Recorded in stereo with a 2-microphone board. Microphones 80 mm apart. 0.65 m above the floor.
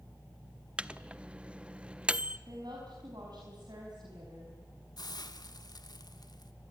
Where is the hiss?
60° left (ahead or behind), 1.4 m.